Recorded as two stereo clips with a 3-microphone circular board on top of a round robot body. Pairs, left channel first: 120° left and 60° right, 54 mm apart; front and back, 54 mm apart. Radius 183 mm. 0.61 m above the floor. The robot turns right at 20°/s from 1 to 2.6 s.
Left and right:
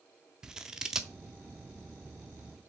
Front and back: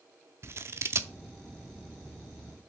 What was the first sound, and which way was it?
Scissors, 135° right.